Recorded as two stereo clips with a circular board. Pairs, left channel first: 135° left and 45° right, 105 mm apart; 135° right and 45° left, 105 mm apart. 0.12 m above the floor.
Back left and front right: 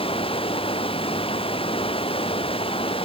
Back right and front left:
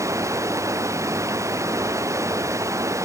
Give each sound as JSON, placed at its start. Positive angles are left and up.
{"t": 0.0, "sound": "running water", "azimuth_deg": 105}